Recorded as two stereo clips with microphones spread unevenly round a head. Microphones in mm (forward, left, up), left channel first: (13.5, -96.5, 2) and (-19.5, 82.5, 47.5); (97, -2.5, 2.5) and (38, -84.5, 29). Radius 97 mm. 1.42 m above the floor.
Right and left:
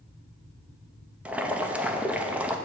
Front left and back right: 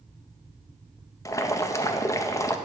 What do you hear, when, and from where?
1.2 s boiling: 10° left, 0.6 m